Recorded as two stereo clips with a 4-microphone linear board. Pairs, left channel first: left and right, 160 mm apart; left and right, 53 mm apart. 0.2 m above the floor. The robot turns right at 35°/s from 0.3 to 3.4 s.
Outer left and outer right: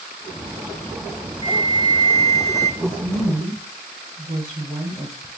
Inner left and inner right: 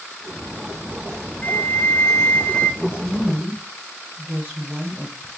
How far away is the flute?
About 0.6 m.